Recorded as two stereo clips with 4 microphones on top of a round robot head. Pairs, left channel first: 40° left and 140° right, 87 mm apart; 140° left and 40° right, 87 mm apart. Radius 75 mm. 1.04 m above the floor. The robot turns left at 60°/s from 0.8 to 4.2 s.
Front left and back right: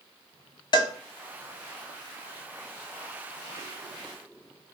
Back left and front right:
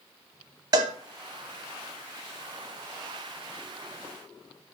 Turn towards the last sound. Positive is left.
turn(degrees=160)